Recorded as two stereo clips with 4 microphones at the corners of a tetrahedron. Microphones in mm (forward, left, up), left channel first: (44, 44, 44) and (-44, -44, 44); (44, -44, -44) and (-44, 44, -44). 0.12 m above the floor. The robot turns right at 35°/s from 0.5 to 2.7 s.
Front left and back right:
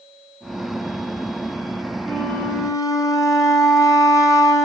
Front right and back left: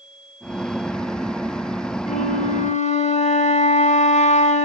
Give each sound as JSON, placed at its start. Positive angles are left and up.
{"t": 2.1, "sound": "a flute", "azimuth_deg": -40, "distance_m": 5.0}